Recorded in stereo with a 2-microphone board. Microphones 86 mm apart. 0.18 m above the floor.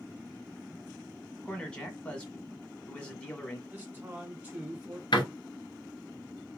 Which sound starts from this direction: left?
A door slam, at 5.1 s.